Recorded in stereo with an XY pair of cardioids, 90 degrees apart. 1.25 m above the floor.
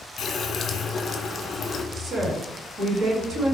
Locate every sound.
0.2 s a running tap: 60° left, 0.7 m
1.9 s a woman speaking: 65° right, 2 m